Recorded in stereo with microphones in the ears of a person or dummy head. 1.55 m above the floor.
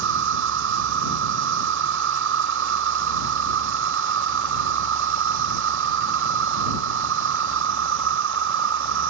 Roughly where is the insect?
Right.